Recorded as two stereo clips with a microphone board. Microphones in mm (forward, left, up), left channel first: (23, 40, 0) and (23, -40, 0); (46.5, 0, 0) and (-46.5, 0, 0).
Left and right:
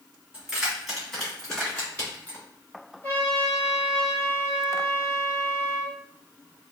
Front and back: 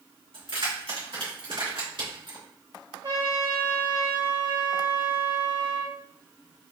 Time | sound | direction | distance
0.3 | keys jangling | 170° right | 2 m
3.0 | a trumpet | 150° left | 1.6 m